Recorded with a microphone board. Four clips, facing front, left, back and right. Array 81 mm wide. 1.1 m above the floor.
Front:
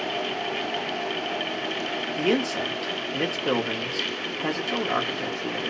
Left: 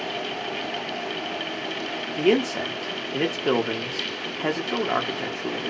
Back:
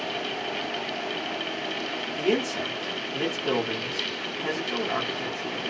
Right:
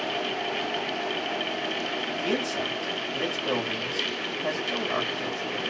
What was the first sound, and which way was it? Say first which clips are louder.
A man speaking: left 9 dB, front 1 dB; 70° left.